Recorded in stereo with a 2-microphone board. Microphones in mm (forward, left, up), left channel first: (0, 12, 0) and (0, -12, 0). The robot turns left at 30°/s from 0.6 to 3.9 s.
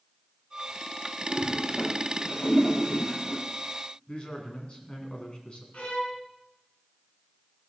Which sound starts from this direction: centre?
A toilet flushing, at 1.3 s.